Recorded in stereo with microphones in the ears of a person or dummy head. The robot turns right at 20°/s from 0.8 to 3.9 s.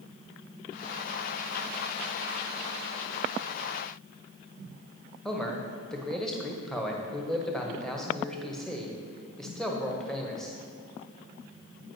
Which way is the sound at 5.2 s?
5° left (ahead or behind).